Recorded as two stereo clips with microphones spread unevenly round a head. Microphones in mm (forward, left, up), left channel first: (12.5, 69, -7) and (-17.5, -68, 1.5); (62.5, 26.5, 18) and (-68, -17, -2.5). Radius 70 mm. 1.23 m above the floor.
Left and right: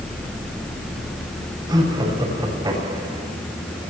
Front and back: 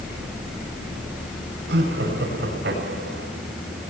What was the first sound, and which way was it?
Laughter, 165° right.